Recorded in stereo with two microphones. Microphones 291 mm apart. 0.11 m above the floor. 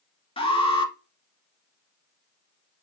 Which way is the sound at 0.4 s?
20° left (ahead or behind).